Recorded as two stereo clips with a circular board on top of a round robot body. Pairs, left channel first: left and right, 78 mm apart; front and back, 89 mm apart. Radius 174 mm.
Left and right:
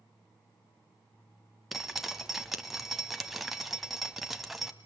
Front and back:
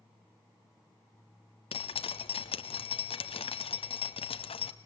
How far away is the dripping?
About 1.0 m.